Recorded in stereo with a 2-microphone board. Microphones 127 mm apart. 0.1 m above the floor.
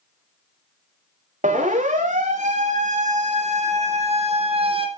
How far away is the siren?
About 7.5 m.